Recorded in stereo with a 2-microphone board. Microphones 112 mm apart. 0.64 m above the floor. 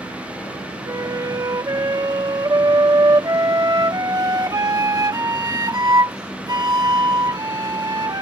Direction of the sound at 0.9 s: 35° right (ahead or behind).